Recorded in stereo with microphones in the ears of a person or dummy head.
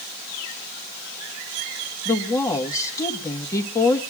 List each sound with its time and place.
2.0 s a woman speaking: 20° left (ahead or behind), 1.3 m